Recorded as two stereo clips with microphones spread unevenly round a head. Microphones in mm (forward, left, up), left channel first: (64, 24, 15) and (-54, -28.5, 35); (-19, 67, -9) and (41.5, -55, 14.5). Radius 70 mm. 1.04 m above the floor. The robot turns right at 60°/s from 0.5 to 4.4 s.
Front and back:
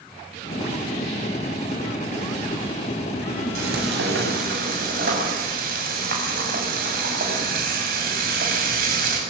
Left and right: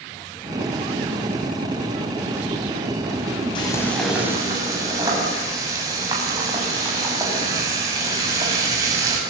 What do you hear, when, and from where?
3.5 s frying: 175° left, 7.5 m; by 9.2 s 130° right, 7.5 m